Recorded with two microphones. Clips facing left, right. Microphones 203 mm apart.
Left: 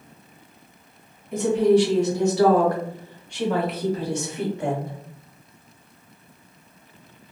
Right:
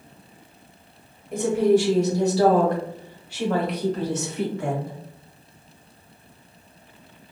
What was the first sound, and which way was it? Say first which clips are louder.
A woman speaking: left 1 dB; 55° right (ahead or behind).